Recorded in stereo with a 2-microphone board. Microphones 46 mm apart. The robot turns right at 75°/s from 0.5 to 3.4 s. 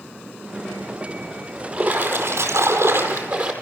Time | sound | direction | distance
1.7 | a splash | 165° right | 4.5 m